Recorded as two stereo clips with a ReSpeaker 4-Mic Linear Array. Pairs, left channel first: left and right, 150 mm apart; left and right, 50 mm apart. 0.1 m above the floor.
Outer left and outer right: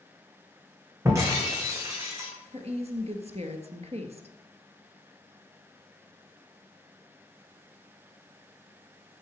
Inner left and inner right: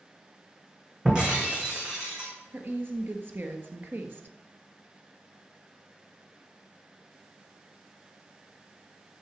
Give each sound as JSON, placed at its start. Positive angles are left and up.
{"t": 1.1, "sound": "breaking glass", "side_deg": -20, "distance_m": 3.0}
{"t": 2.5, "sound": "a woman speaking", "side_deg": -45, "distance_m": 1.5}